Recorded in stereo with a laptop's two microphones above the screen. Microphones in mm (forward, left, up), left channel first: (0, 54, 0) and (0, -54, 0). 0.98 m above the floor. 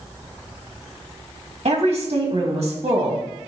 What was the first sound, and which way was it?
A woman speaking, 65° right (ahead or behind).